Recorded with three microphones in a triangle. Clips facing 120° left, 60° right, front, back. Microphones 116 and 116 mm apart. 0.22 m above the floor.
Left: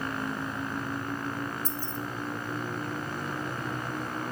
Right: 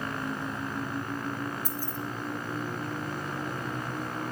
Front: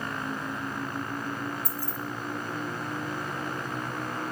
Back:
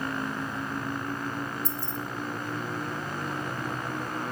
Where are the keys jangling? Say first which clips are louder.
Even, back 1 dB; 135° right, 0.9 m.